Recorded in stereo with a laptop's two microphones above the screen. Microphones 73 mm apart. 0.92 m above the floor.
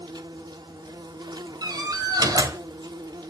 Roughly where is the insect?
Right.